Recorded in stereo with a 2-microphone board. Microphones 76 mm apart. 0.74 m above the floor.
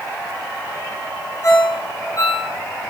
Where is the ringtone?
50° left (ahead or behind), 4.5 m.